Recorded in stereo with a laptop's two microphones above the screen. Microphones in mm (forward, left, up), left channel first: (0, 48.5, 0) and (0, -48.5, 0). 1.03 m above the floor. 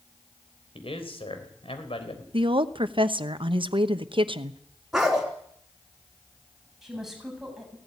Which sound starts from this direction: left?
A man speaking, at 0.8 s.